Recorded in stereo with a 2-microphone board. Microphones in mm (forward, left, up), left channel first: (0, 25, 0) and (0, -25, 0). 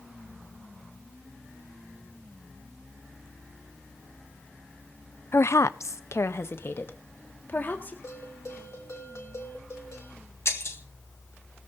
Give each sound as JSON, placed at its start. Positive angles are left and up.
{"t": 5.3, "sound": "a woman speaking", "side_deg": 50, "distance_m": 0.5}
{"t": 8.0, "sound": "a bell", "side_deg": 65, "distance_m": 3.0}
{"t": 10.4, "sound": "breaking glass", "side_deg": 60, "distance_m": 1.8}